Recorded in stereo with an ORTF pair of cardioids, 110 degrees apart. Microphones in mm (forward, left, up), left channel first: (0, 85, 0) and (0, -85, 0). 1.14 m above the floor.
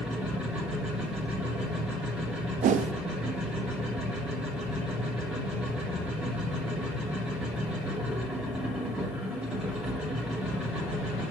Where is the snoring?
I don't hear snoring.